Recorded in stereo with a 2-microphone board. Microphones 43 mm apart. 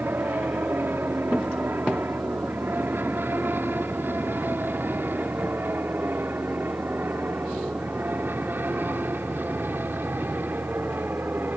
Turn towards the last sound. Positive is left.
turn(degrees=-55)  # may be behind; listen again after turning